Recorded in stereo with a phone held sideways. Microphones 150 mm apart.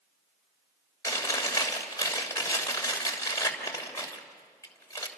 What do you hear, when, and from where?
1.0 s chewing: 20° left (ahead or behind), 3.5 m